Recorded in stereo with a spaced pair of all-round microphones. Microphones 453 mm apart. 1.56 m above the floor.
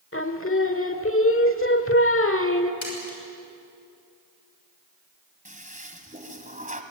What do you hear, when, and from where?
0.1 s singing: 30° left (ahead or behind), 1.3 m
2.8 s a splash: 80° left, 6 m
5.5 s a toilet flushing: 15° right (ahead or behind), 1.8 m